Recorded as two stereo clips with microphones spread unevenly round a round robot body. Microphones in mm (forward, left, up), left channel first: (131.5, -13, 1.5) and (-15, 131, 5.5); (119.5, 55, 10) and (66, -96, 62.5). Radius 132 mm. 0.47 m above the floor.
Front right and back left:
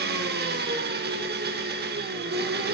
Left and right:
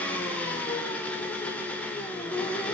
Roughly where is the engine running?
Behind left.